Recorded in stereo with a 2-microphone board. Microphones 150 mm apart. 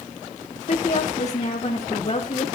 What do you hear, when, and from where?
0.7 s a woman speaking: 55° left (ahead or behind), 1.7 m; by 2.5 s 45° left (ahead or behind), 3.5 m